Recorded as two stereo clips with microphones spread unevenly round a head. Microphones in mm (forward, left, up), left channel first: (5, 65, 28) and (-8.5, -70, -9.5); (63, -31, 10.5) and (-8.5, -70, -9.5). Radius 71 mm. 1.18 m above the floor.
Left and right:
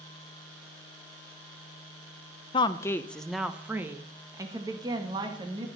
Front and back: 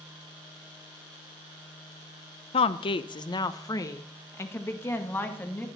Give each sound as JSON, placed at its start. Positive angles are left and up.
{"t": 2.5, "sound": "a woman speaking", "azimuth_deg": 25, "distance_m": 0.6}